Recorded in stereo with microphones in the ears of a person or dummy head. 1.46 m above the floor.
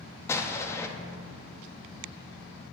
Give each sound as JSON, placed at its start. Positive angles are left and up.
{"t": 0.3, "sound": "an explosion", "side_deg": 15, "distance_m": 0.7}